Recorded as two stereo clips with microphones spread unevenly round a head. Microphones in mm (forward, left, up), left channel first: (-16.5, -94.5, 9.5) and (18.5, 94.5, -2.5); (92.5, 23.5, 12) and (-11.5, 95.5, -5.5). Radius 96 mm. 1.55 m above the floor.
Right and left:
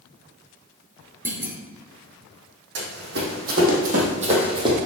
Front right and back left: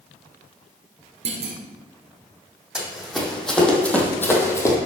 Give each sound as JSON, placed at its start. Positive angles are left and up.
{"t": 1.2, "sound": "a clunk", "azimuth_deg": 160, "distance_m": 1.5}
{"t": 2.8, "sound": "running footsteps", "azimuth_deg": 55, "distance_m": 3.0}